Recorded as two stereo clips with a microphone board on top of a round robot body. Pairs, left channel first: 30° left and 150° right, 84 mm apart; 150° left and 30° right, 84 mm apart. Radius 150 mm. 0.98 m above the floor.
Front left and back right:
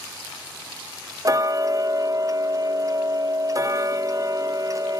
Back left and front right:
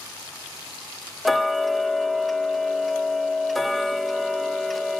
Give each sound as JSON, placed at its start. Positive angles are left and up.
{"t": 1.2, "sound": "ticking", "azimuth_deg": -125, "distance_m": 0.6}